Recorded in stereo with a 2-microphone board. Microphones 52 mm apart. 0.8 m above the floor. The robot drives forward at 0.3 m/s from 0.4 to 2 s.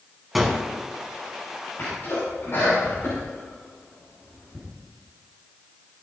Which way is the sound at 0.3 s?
Centre (ahead or behind).